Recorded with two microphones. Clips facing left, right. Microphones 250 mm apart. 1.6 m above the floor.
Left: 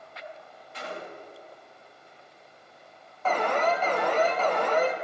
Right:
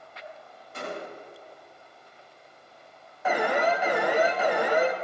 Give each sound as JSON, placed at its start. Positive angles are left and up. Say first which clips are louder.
{"t": 0.7, "sound": "a gunshot", "louder": "right 3 dB", "side_deg": -50, "distance_m": 1.4}
{"t": 3.2, "sound": "an alarm", "louder": "right 1 dB", "side_deg": -10, "distance_m": 0.8}